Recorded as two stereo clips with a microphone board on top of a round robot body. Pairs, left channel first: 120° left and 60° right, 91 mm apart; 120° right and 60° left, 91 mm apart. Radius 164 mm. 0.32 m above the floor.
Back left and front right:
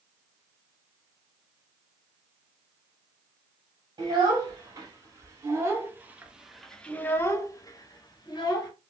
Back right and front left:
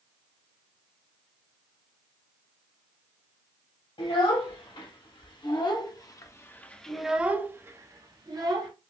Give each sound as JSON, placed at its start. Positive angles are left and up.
{"t": 4.0, "sound": "a child speaking", "azimuth_deg": -105, "distance_m": 1.8}